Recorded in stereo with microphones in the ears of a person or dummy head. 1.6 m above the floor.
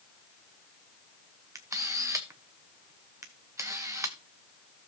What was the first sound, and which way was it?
A camera shutter, 15° right (ahead or behind).